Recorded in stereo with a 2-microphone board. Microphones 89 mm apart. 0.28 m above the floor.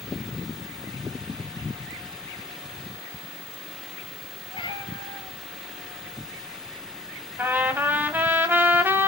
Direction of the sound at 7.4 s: 25° right (ahead or behind).